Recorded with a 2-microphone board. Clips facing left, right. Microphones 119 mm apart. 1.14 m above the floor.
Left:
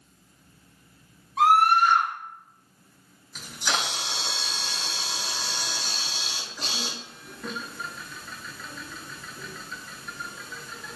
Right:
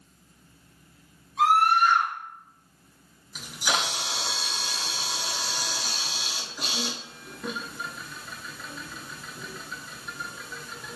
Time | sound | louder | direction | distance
1.4 | a scream | left 2 dB | 85° left | 1.6 m
3.4 | a camera shutter | right 1 dB | 10° right (ahead or behind) | 0.6 m